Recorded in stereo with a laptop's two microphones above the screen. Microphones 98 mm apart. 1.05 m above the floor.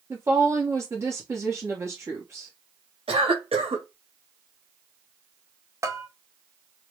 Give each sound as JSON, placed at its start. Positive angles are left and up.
{"t": 0.1, "sound": "a woman speaking", "side_deg": -30, "distance_m": 1.0}
{"t": 3.1, "sound": "a cough", "side_deg": -75, "distance_m": 1.5}
{"t": 5.8, "sound": "a bell", "side_deg": -30, "distance_m": 0.7}